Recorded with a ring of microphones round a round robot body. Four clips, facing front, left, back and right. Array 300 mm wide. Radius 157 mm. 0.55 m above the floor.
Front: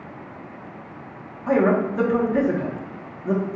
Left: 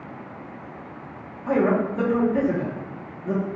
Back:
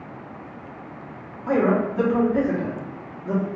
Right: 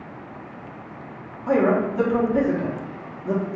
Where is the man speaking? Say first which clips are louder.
Right 2 dB, front 1 dB; 5° left, 1.1 m.